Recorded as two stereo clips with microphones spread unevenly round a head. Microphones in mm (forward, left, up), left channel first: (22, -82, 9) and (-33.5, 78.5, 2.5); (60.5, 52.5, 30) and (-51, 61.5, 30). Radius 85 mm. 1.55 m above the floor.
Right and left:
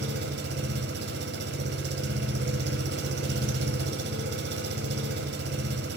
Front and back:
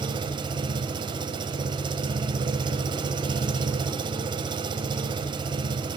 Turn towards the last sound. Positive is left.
turn(degrees=130)